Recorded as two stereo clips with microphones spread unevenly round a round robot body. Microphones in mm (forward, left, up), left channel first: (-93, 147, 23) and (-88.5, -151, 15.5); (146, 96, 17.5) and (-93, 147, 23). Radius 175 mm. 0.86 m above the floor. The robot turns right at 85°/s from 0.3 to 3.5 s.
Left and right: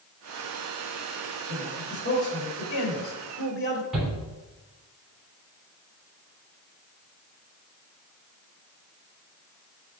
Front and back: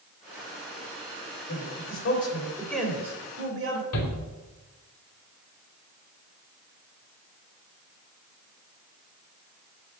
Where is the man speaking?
30° right, 3 m; by 3.8 s 140° left, 3 m.